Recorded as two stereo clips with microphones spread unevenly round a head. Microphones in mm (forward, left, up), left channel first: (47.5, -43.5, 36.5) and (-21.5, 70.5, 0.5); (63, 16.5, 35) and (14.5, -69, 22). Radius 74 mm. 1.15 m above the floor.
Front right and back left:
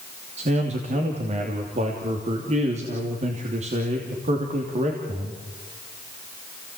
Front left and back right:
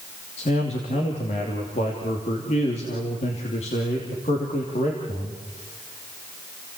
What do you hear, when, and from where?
0.4 s a man speaking: 90° left, 3 m